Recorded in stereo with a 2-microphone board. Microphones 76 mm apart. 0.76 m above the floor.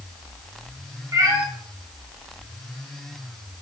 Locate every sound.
1.1 s a cat meowing: 50° right (ahead or behind), 3 m